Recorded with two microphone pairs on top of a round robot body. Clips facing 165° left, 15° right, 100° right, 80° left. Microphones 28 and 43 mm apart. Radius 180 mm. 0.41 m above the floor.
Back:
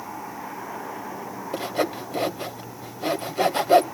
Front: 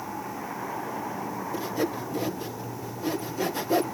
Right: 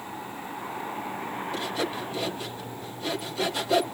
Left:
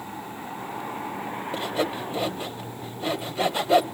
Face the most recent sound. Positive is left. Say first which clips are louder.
# back 4 dB, left 4 dB
turn(degrees=145)